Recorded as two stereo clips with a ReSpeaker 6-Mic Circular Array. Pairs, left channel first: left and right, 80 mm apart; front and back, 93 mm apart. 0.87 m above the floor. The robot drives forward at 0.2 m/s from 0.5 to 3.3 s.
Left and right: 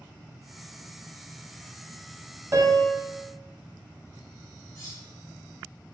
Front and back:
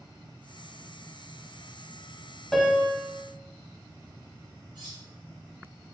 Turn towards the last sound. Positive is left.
turn(degrees=135)